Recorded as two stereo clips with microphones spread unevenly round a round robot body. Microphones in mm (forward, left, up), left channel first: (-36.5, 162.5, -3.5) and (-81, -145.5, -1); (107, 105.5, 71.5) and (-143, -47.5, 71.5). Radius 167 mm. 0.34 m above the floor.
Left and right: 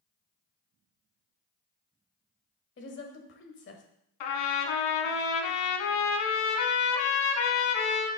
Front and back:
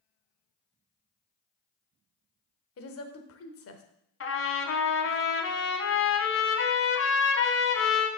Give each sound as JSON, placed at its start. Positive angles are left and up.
{"t": 2.8, "sound": "a woman speaking", "azimuth_deg": 40, "distance_m": 1.1}
{"t": 4.2, "sound": "a trumpet", "azimuth_deg": 80, "distance_m": 1.1}